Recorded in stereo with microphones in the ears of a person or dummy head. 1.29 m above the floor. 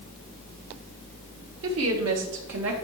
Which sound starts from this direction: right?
A woman speaking, at 1.6 s.